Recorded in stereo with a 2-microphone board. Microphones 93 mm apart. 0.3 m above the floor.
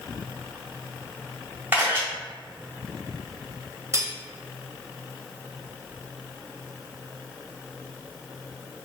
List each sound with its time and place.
1.7 s a camera shutter: 20° right (ahead or behind), 1.8 m
3.9 s cutlery clinking: 30° right (ahead or behind), 0.6 m